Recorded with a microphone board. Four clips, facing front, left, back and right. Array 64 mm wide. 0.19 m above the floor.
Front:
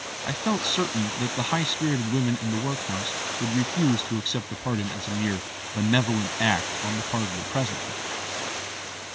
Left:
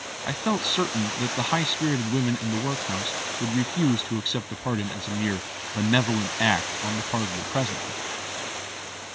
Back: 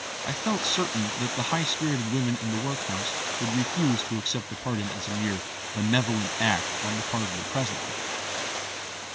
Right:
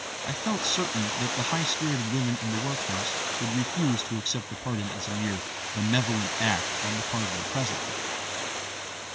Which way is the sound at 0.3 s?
70° left.